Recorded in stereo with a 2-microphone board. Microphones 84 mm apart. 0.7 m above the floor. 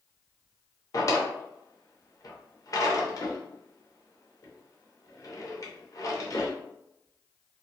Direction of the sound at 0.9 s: 45° left (ahead or behind).